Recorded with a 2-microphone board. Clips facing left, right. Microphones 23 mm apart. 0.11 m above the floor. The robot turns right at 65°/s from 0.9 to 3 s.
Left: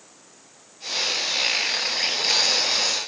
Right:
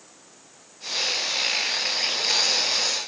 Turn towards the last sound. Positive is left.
No sound to turn to.